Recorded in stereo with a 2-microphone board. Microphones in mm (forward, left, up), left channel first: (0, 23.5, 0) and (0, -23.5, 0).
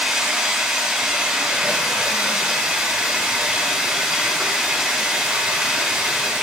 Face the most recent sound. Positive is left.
turn(degrees=-5)  # may be behind; listen again after turning